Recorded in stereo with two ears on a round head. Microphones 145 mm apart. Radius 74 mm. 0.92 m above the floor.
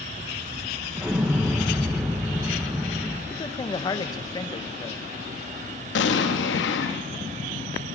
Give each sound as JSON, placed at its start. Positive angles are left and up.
{"t": 1.0, "sound": "an explosion", "side_deg": -5, "distance_m": 0.9}
{"t": 3.3, "sound": "a man speaking", "side_deg": 25, "distance_m": 0.6}
{"t": 6.0, "sound": "an explosion", "side_deg": 85, "distance_m": 0.7}